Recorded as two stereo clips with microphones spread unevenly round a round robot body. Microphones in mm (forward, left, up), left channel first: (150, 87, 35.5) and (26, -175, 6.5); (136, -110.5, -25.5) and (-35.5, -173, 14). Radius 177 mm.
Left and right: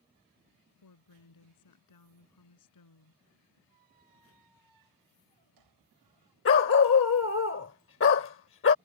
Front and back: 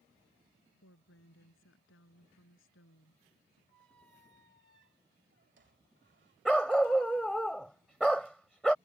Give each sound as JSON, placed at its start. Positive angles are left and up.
{"t": 0.8, "sound": "a woman speaking", "azimuth_deg": 55}
{"t": 3.7, "sound": "a squeak", "azimuth_deg": -140}
{"t": 6.5, "sound": "a dog barking", "azimuth_deg": 115}